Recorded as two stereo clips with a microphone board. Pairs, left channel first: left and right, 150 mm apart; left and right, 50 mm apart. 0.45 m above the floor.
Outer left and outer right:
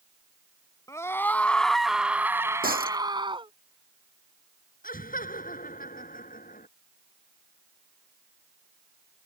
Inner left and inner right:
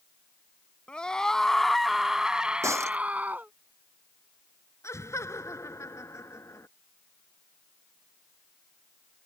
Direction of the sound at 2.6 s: 75° right (ahead or behind).